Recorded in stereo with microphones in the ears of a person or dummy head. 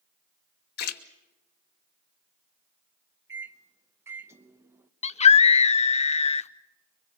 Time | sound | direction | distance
0.8 | a splash | 50° left (ahead or behind) | 1.1 m
3.3 | a microwave | 20° right (ahead or behind) | 0.8 m
5.0 | a scream | 30° left (ahead or behind) | 0.7 m